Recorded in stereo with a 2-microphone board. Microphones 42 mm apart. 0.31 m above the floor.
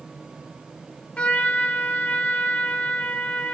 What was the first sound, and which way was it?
A trumpet, 35° left (ahead or behind).